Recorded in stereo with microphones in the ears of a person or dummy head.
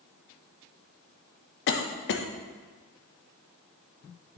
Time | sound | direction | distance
1.7 | a cough | 65° left (ahead or behind) | 0.8 m